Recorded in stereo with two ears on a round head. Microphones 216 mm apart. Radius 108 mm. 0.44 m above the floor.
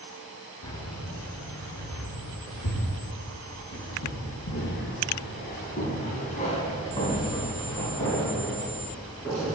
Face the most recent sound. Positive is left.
turn(degrees=0)  # may be behind; listen again after turning